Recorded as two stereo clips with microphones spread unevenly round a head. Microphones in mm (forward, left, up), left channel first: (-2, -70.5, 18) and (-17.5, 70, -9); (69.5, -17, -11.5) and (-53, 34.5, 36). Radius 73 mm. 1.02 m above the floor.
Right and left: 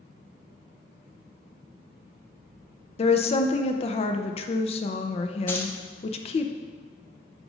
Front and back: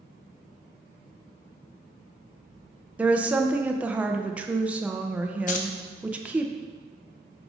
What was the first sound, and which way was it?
A woman speaking, 95° right.